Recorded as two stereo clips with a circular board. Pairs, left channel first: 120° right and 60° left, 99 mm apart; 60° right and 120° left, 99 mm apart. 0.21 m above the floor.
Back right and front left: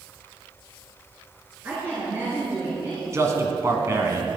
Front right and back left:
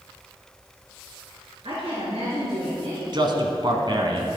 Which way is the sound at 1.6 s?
130° left.